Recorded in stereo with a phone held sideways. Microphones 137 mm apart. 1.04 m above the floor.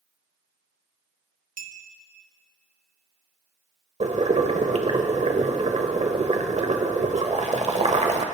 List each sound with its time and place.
1.6 s a clink: 80° right, 1.0 m
4.0 s boiling: 55° right (ahead or behind), 1.2 m